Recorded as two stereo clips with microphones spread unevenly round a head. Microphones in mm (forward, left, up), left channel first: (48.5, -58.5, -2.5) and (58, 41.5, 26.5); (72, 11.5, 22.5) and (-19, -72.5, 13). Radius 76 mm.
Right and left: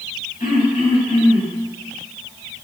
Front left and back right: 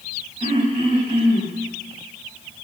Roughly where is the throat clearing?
Right.